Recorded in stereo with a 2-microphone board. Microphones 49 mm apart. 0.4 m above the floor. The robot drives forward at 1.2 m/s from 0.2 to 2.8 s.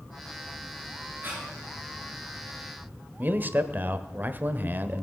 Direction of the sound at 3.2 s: 40° right (ahead or behind).